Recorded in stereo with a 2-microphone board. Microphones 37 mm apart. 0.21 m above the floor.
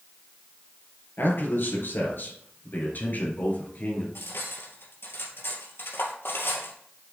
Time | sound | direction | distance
1.2 | a man speaking | 65° left (ahead or behind) | 4 m
4.2 | cutlery clinking | 75° left (ahead or behind) | 2.5 m